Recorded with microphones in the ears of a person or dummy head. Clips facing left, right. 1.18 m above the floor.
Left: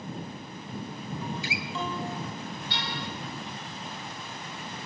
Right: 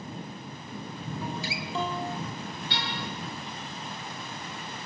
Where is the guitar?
30° right (ahead or behind), 2.5 m.